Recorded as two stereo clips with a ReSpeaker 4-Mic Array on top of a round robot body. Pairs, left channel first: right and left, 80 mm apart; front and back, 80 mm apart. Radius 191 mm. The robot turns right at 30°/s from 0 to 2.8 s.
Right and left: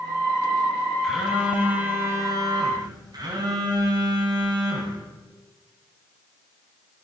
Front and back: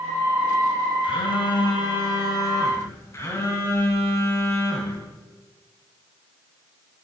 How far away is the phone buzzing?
About 3 m.